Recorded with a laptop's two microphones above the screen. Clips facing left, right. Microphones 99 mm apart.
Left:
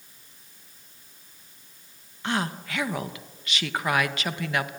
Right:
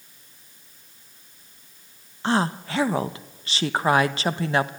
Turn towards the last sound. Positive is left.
turn(degrees=-30)  # may be behind; listen again after turning